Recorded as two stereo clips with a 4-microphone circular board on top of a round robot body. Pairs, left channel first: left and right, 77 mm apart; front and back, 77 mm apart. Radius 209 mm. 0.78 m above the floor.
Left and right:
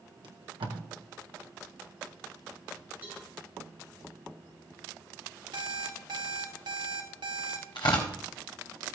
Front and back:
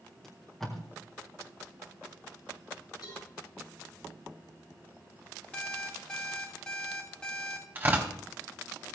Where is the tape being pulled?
85° right, 1.6 m.